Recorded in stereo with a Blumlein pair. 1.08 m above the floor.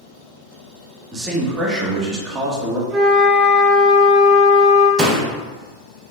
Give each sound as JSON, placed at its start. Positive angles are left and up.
{"t": 1.1, "sound": "a man speaking", "azimuth_deg": -20, "distance_m": 1.1}
{"t": 2.9, "sound": "a flute", "azimuth_deg": -35, "distance_m": 1.7}
{"t": 5.0, "sound": "a door slam", "azimuth_deg": -20, "distance_m": 0.7}